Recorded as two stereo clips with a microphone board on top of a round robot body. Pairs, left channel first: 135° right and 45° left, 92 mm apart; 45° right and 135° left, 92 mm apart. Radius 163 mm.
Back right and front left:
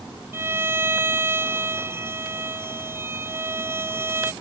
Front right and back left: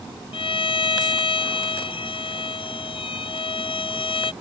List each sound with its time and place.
0.3 s a violin: 20° right